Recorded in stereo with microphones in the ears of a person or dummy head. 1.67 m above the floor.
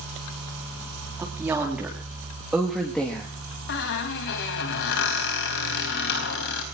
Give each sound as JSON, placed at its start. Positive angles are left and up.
{"t": 1.2, "sound": "a woman speaking", "side_deg": -10, "distance_m": 3.5}
{"t": 3.7, "sound": "a squeak", "side_deg": 65, "distance_m": 4.0}